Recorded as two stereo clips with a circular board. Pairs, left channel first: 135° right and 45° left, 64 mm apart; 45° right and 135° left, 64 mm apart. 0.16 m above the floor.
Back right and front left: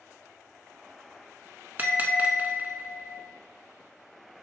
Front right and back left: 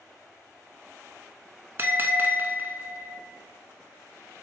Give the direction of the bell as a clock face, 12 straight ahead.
9 o'clock.